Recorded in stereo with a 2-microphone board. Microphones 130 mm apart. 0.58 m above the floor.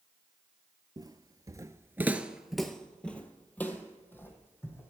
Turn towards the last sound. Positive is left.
turn(degrees=15)  # may be behind; listen again after turning